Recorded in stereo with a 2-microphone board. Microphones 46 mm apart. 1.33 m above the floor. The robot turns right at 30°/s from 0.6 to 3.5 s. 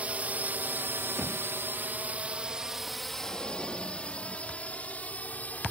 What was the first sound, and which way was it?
A drone, 30° right (ahead or behind).